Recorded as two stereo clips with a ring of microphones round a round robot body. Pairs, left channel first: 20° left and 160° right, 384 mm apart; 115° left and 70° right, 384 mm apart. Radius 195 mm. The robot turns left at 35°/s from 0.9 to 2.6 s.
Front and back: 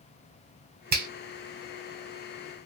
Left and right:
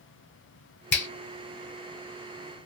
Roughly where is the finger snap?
Behind left.